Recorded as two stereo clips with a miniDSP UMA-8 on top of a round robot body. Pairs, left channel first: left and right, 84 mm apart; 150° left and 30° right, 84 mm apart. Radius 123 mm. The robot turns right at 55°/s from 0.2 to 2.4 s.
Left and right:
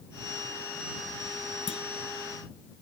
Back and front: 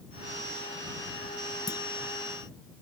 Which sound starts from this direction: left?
A clunk, at 1.7 s.